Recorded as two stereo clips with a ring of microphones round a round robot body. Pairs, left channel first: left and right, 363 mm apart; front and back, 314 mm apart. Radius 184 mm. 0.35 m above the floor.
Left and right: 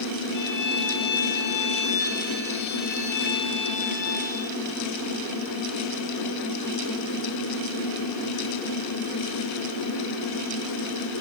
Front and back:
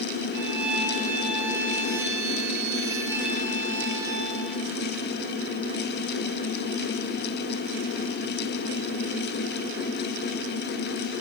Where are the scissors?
I don't hear scissors.